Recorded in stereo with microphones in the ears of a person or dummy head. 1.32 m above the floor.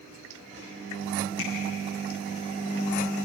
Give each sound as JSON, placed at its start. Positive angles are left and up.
{"t": 1.4, "sound": "tapping", "side_deg": 80, "distance_m": 9.0}